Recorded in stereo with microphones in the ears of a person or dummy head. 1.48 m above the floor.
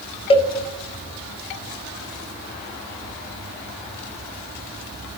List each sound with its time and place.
0.3 s a cowbell: 30° left (ahead or behind), 0.5 m